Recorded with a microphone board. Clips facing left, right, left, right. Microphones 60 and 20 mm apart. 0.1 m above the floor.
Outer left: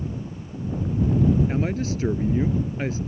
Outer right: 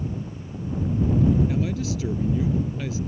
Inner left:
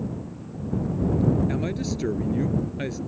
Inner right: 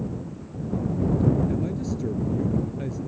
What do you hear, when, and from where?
1.5 s a man speaking: 40° left (ahead or behind)